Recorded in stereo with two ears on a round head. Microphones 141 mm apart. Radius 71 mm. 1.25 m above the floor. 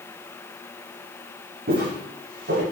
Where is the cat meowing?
No cat meowing in this recording.